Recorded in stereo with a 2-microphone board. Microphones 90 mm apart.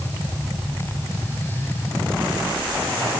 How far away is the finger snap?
No finger snap in this recording.